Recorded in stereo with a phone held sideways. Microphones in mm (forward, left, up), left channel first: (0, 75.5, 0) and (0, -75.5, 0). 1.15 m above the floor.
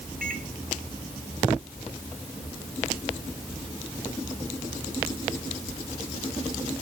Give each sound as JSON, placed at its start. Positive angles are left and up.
{"t": 0.2, "sound": "a microwave", "side_deg": -75, "distance_m": 4.0}